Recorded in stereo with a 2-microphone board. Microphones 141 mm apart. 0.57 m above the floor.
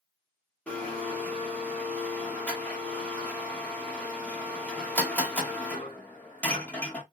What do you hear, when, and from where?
0.7 s a blender: 10° left (ahead or behind), 1.4 m